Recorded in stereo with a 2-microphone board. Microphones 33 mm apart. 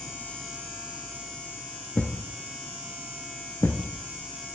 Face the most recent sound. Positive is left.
turn(degrees=65)  # may be behind; listen again after turning